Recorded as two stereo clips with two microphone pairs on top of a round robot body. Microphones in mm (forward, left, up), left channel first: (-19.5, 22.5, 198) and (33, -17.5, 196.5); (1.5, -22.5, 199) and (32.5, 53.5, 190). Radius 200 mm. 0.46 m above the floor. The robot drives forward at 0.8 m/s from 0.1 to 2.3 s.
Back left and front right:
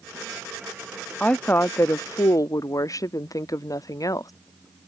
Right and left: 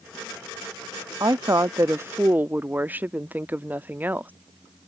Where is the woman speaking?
70° left; by 4.3 s 130° left.